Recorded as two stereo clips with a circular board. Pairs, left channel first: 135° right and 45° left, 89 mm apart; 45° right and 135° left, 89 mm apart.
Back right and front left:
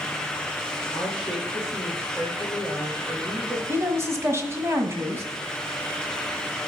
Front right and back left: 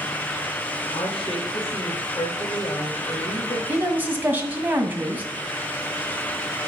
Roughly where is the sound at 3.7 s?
Left.